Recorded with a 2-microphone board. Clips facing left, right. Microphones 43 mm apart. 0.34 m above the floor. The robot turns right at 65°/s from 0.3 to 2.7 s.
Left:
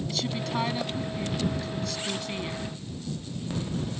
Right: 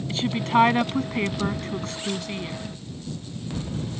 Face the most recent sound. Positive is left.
turn(degrees=10)